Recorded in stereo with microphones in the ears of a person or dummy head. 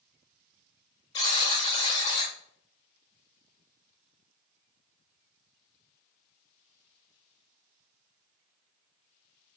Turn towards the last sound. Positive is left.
turn(degrees=30)  # may be behind; listen again after turning